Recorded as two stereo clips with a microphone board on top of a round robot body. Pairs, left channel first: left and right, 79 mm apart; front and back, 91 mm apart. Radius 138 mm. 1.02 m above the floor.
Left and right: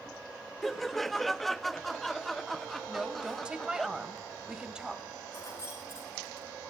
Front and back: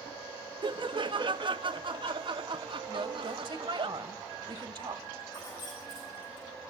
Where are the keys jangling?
40° left, 9.5 m.